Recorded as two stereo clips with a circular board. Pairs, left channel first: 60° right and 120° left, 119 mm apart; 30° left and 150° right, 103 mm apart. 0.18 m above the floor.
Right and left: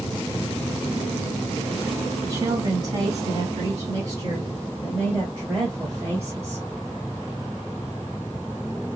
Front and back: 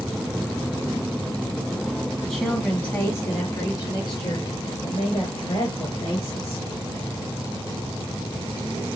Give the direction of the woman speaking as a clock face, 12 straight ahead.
8 o'clock.